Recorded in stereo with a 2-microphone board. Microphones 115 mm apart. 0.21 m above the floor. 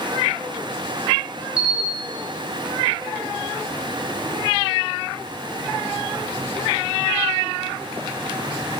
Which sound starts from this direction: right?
A camera shutter, at 1.6 s.